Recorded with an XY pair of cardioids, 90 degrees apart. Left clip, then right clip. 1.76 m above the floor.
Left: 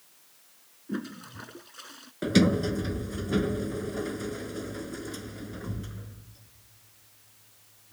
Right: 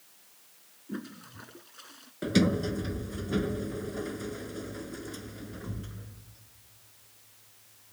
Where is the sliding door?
25° left.